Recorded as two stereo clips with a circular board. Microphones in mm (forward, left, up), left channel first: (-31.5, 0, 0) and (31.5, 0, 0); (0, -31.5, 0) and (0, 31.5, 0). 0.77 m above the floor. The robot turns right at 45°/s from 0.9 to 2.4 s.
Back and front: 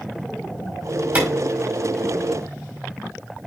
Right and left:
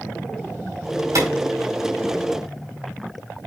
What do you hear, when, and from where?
1.1 s a clap: 65° left, 5 m; by 1.3 s 70° left, 5 m